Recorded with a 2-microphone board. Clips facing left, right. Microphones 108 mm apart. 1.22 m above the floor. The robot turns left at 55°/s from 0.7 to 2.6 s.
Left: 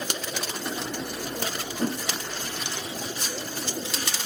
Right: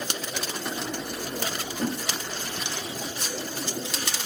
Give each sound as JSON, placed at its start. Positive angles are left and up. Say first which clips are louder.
{"t": 1.8, "sound": "a whoosh", "louder": "left 1 dB", "side_deg": 30, "distance_m": 0.7}